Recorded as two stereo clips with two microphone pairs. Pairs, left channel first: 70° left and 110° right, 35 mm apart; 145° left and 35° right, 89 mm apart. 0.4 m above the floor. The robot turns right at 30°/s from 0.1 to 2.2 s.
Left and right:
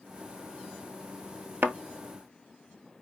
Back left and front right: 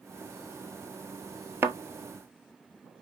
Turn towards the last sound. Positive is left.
turn(degrees=-80)